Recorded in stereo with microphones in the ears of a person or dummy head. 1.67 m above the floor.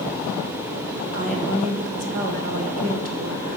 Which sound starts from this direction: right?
A woman speaking, at 1.1 s.